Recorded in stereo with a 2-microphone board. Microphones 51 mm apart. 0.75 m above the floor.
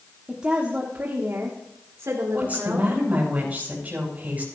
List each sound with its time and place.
0.3 s a woman speaking: 15° right (ahead or behind), 1.4 m; by 2.9 s 75° right (ahead or behind), 2.5 m
2.3 s a woman speaking: 30° right (ahead or behind), 5.5 m